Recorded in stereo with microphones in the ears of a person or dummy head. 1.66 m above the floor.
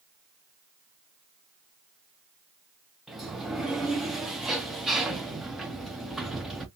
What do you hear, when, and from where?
3.1 s a sliding door: 5° right (ahead or behind), 0.6 m